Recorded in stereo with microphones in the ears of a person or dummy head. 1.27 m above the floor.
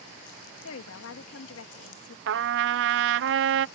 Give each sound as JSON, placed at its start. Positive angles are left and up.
{"t": 0.6, "sound": "a woman speaking", "side_deg": 80}
{"t": 2.3, "sound": "a trumpet", "side_deg": -65}